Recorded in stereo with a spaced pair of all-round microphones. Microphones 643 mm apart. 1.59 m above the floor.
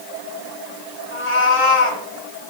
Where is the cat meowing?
50° left (ahead or behind), 2.5 m.